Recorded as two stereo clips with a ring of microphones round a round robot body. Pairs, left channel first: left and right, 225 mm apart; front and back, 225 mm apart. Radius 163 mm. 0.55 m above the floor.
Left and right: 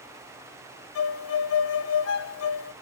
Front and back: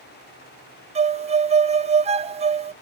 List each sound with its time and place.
0.9 s a violin: 115° left, 0.5 m